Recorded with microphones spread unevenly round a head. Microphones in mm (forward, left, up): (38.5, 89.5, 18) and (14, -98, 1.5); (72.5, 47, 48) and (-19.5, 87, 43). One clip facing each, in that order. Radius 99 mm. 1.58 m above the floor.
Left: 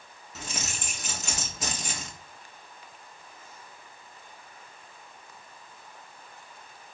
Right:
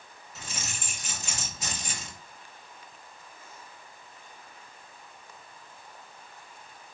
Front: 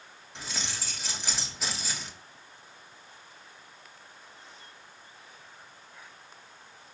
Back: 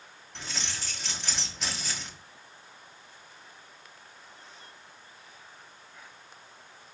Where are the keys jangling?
60° left, 3 m.